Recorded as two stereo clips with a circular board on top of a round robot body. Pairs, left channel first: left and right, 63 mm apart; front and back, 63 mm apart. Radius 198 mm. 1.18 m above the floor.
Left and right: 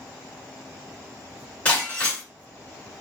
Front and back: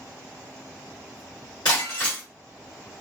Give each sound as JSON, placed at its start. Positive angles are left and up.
{"t": 1.6, "sound": "breaking glass", "azimuth_deg": 20, "distance_m": 2.0}